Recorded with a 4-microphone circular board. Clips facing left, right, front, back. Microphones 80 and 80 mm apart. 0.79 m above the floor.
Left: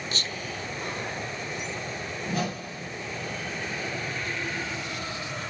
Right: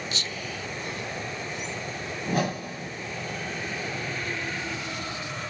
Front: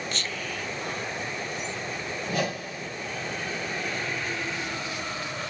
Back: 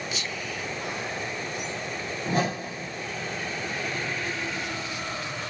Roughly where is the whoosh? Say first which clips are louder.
Right 4 dB, back 3 dB; behind right.